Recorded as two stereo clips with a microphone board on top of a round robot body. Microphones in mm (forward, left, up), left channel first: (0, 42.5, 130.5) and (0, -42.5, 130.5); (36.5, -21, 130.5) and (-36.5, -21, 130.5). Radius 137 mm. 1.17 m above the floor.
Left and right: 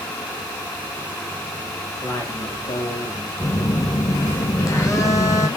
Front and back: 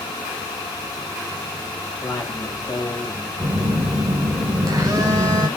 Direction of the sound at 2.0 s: 50° left.